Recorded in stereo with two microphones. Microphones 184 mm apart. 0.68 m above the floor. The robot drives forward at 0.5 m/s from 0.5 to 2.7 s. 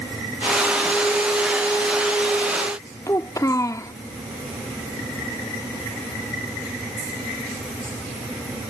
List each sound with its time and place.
3.1 s a child speaking: 15° left (ahead or behind)